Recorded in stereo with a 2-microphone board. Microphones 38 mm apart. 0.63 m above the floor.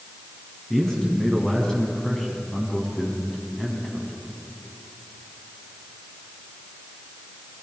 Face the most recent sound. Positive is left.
turn(degrees=30)  # may be behind; listen again after turning